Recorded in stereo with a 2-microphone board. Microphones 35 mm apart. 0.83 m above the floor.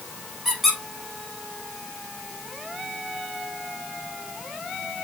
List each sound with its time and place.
0.5 s a squeak: 5° right (ahead or behind), 2 m